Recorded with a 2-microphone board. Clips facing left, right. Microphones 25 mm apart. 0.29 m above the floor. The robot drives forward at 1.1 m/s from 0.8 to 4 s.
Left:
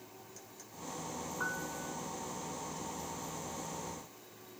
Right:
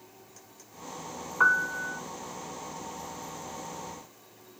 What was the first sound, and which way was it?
A piano, 50° right (ahead or behind).